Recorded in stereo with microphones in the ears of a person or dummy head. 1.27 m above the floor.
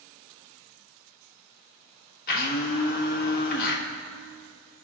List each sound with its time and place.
2.3 s a blender: 50° left (ahead or behind), 1.7 m